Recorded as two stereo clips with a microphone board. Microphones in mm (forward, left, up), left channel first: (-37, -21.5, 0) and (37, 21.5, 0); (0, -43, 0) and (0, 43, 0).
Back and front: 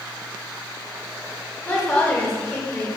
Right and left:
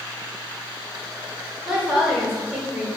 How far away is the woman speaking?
About 0.9 m.